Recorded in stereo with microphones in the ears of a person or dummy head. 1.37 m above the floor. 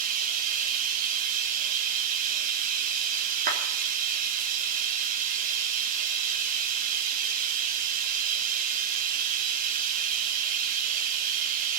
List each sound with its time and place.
0.0 s running water: 45° right (ahead or behind), 1.4 m
3.5 s a clap: 50° right (ahead or behind), 3 m